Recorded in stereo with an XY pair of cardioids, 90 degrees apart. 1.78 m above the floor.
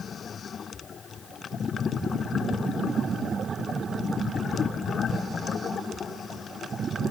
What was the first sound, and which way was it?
Only background noise.